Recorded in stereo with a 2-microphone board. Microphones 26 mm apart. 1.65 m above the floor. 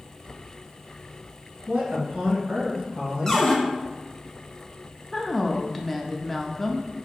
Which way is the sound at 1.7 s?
75° right (ahead or behind).